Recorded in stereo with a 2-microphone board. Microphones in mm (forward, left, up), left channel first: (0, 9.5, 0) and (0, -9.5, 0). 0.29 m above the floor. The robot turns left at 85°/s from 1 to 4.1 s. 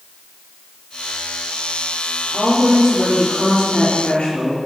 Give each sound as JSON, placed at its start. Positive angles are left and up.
{"t": 2.3, "sound": "a woman speaking", "azimuth_deg": -150, "distance_m": 5.0}